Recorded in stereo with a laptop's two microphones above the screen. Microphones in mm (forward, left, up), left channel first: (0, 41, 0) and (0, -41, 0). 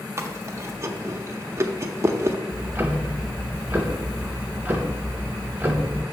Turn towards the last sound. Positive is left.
turn(degrees=-25)  # may be behind; listen again after turning